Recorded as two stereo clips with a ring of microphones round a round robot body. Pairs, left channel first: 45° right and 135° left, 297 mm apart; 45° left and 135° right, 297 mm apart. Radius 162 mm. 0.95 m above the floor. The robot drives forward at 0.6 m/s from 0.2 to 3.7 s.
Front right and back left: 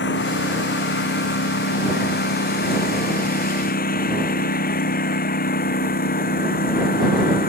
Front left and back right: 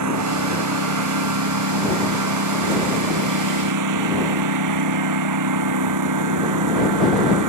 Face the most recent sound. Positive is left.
turn(degrees=-105)